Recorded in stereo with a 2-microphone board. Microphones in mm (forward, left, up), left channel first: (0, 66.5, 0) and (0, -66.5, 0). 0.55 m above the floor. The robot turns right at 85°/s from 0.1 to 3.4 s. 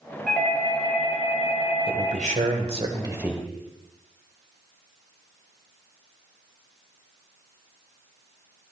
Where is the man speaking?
130° right, 1.8 m; by 3.4 s straight ahead, 1.8 m.